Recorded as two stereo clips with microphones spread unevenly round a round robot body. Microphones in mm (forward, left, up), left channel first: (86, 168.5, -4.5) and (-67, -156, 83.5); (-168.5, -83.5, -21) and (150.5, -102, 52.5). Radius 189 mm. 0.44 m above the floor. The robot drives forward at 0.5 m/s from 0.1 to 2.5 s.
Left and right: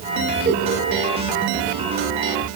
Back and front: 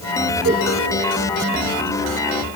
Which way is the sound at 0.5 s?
50° right.